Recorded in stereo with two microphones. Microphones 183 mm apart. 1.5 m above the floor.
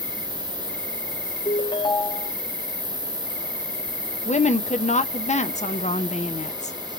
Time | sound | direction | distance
0.0 | an insect | 75° left (ahead or behind) | 3 m
1.4 | a ringtone | 25° left (ahead or behind) | 0.5 m
4.2 | a woman speaking | 35° left (ahead or behind) | 0.7 m